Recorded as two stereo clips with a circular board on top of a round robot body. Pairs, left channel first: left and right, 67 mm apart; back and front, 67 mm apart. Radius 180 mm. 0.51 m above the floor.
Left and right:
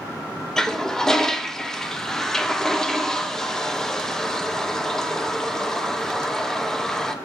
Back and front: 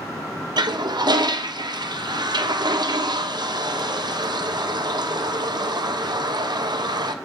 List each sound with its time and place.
0.6 s a toilet flushing: 10° left, 1.4 m